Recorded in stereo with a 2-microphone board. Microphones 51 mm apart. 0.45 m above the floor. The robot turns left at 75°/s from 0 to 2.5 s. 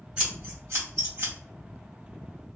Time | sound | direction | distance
0.2 | scissors | 20° right (ahead or behind) | 2.0 m